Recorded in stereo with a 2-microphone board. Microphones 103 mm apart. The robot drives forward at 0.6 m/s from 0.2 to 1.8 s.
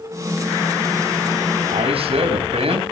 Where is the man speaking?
70° right (ahead or behind), 4 m.